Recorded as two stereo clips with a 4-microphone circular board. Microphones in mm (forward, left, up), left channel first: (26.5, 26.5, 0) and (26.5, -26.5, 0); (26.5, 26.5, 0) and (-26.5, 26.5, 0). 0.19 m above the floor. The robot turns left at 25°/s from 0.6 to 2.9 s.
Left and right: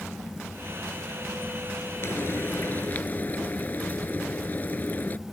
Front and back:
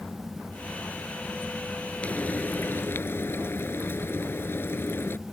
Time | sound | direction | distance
2.0 | frying | 60° left | ?